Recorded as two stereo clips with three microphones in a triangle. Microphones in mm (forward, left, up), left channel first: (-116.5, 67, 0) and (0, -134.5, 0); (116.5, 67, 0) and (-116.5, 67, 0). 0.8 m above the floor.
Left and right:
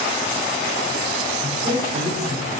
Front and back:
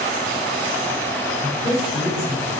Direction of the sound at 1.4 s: 80° right.